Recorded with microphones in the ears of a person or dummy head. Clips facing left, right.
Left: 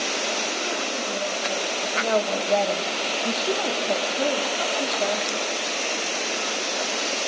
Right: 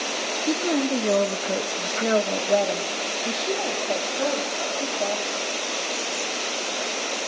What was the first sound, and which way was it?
A woman speaking, 80° right.